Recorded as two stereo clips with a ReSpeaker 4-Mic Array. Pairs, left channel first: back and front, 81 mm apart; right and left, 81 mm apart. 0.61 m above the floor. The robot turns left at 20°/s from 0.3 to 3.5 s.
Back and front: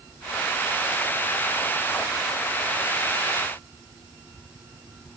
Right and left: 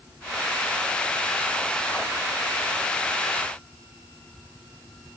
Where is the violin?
No violin in this recording.